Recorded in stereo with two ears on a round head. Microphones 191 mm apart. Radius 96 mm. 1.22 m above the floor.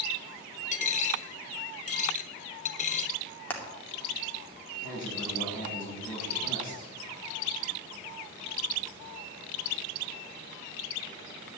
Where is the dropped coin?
35° left (ahead or behind), 1.2 m.